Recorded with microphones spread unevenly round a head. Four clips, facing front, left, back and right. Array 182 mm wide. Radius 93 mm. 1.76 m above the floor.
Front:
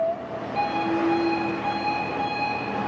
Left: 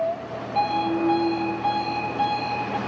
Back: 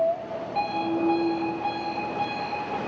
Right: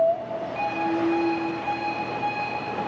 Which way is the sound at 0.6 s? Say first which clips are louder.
Left 4 dB, front 2 dB; 90° left.